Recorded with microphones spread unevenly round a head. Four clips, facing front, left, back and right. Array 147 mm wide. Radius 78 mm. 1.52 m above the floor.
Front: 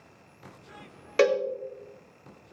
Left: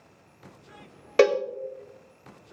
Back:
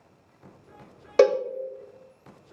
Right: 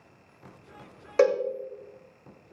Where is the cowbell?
140° left, 0.7 m.